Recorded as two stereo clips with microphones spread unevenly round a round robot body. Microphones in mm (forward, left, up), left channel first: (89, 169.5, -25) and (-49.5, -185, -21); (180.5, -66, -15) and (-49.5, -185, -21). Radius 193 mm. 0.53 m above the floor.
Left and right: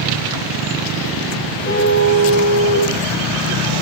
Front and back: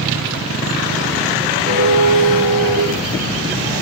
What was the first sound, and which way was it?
A car horn, 135° left.